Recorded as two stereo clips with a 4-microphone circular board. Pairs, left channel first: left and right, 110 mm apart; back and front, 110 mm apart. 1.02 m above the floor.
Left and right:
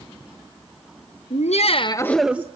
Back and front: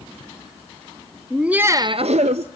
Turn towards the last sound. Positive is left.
turn(degrees=-20)